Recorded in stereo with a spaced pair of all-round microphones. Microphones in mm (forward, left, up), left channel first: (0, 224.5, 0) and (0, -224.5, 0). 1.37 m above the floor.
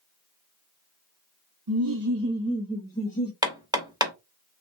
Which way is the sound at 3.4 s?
10° right (ahead or behind).